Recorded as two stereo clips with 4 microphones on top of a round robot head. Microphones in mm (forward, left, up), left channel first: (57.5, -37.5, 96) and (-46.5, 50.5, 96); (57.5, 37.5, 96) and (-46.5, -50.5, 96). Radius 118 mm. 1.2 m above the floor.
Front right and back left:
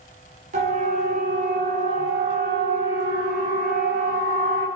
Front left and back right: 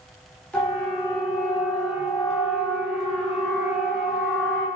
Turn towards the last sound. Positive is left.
turn(degrees=130)